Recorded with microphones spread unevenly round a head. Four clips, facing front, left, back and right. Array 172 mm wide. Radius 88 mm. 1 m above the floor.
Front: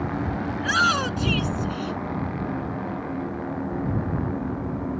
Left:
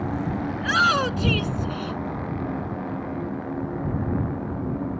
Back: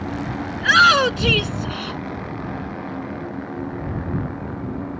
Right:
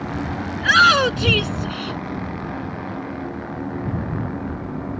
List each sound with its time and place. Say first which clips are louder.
0.6 s a shout: right 7 dB, back 9 dB; 140° right